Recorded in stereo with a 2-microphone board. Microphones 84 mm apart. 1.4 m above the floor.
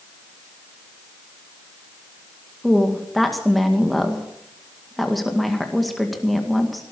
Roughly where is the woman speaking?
Centre.